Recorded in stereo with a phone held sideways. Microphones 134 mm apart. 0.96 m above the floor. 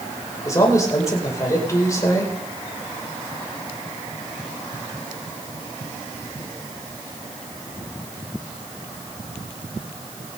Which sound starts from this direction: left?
A man speaking, at 0.5 s.